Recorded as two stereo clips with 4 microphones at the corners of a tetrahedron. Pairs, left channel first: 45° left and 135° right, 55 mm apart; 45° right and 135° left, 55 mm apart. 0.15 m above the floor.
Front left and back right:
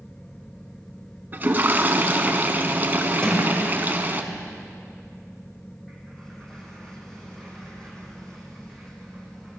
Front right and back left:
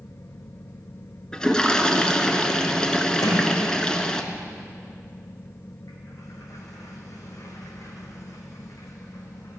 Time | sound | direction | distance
1.3 | a toilet flushing | 115° right | 1.1 m
3.2 | a sliding door | 35° right | 3.5 m